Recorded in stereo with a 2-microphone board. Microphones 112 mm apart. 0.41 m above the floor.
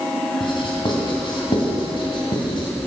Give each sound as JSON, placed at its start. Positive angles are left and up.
{"t": 0.4, "sound": "writing", "side_deg": 50, "distance_m": 1.8}